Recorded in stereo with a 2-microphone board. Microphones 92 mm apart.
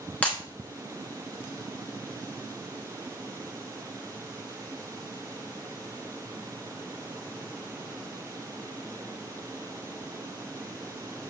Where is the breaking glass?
15° left (ahead or behind), 1.0 m.